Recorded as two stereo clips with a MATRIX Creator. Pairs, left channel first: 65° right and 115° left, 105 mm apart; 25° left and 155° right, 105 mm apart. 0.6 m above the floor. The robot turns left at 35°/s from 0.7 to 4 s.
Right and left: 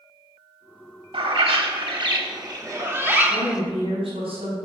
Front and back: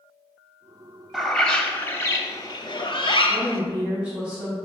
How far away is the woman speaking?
About 3 m.